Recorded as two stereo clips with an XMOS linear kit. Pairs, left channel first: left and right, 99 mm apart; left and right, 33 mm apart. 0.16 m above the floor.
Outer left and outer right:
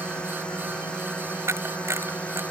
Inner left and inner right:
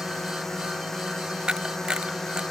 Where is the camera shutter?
25° right (ahead or behind).